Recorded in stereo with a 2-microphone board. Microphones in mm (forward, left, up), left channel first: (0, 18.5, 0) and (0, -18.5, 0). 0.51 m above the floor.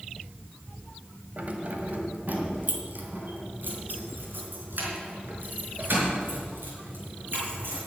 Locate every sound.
1.4 s keys jangling: 45° right (ahead or behind), 1.6 m; by 7.8 s 70° right (ahead or behind), 6 m